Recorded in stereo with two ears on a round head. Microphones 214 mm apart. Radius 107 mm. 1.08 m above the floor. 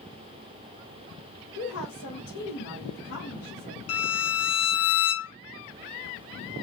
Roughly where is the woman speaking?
Left.